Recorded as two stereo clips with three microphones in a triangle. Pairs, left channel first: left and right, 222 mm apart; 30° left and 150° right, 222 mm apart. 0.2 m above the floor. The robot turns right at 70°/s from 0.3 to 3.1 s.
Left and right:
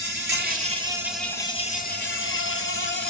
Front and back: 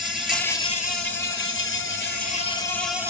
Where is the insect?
60° right, 0.9 m; by 3.1 s 135° left, 0.9 m.